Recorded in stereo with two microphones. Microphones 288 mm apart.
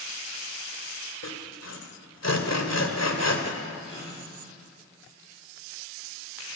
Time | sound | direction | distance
1.2 | sawing | 60° left (ahead or behind) | 2 m
3.8 | a gasp | 20° left (ahead or behind) | 9.5 m